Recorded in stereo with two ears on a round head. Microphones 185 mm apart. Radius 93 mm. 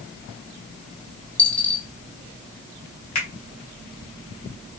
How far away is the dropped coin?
About 0.7 m.